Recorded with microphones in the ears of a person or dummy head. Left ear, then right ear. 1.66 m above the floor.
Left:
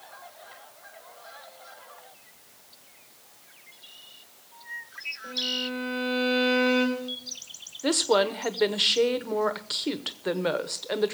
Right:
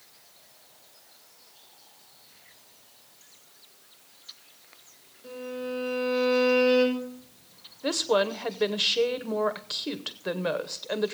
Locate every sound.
5.2 s a violin: 25° left (ahead or behind), 5.5 m
7.8 s a woman speaking: 5° left (ahead or behind), 0.9 m